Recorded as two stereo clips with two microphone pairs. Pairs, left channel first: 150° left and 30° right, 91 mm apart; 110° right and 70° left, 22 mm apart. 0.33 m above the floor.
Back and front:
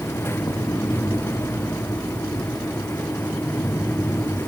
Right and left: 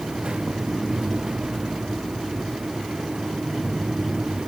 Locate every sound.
Only background noise.